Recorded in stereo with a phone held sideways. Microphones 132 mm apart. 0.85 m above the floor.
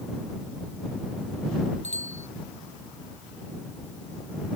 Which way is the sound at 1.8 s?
60° left (ahead or behind).